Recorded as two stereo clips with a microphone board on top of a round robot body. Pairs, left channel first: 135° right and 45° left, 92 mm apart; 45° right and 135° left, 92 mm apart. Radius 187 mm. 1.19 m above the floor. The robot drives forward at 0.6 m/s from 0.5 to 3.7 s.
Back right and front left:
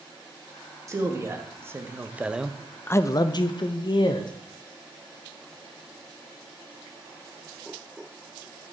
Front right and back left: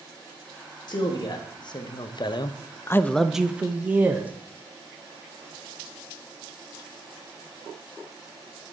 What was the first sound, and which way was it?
A man speaking, 10° right.